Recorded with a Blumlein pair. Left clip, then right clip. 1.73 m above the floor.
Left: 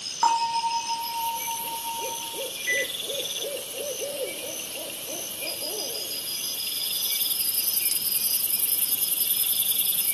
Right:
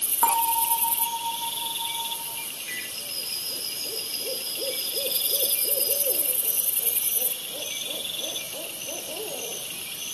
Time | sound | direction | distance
0.2 | a bell | straight ahead | 3.5 m
2.7 | a microwave | 50° left | 3.5 m